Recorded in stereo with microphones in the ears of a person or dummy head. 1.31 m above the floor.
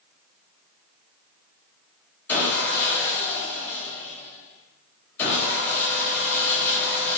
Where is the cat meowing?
No cat meowing in this recording.